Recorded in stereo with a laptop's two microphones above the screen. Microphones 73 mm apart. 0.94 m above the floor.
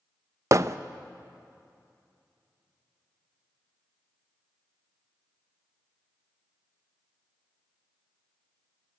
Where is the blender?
I don't hear a blender.